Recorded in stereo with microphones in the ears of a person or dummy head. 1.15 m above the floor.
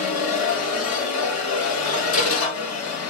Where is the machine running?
80° left, 1.4 m.